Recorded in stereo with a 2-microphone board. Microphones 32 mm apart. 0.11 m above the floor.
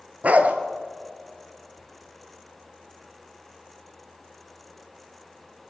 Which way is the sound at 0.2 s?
55° right (ahead or behind).